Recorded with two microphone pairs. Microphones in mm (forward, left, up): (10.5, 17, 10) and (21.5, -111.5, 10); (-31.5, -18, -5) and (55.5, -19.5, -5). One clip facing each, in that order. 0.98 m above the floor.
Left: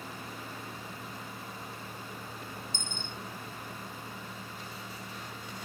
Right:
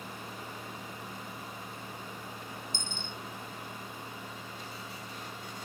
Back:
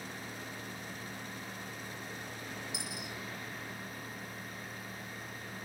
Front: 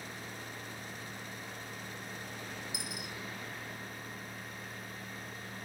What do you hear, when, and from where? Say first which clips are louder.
2.7 s a dropped coin: even, even; 85° left, 1.5 m